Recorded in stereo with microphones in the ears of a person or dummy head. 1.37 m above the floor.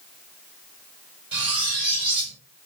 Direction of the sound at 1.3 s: 25° right (ahead or behind).